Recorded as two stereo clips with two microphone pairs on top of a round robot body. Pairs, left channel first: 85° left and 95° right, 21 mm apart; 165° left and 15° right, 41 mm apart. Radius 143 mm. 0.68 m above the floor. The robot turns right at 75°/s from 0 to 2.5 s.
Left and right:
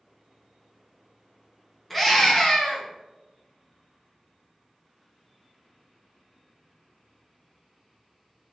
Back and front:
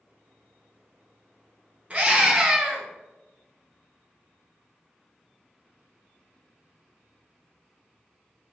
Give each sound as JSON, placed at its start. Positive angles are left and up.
{"t": 1.9, "sound": "a scream", "azimuth_deg": 10, "distance_m": 1.4}